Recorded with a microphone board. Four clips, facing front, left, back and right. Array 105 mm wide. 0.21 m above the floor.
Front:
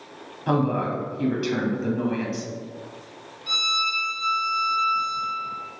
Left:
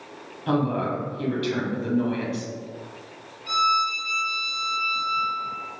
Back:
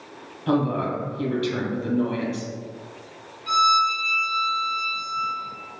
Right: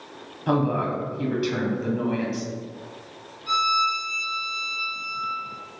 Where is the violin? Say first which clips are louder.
Even, back 10 dB; straight behind, 1.5 m.